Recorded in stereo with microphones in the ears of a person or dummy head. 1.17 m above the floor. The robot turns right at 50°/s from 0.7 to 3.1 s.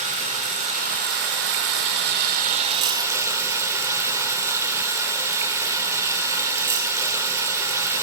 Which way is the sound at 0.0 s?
135° right.